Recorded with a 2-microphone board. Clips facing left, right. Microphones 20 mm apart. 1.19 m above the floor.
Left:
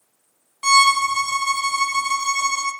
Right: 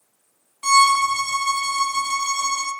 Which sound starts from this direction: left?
A violin, at 0.6 s.